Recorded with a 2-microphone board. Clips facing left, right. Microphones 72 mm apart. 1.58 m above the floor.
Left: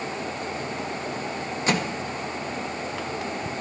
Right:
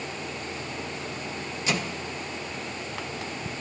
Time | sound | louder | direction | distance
1.7 | a microwave | left 4 dB | 45° left (ahead or behind) | 1.3 m